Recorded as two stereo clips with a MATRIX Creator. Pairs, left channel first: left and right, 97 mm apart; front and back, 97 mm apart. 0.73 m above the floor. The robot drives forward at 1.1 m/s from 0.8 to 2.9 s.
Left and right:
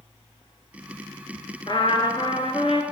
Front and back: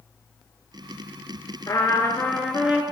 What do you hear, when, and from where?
1.7 s a trumpet: 55° left, 1.7 m; by 2.8 s 105° left, 1.4 m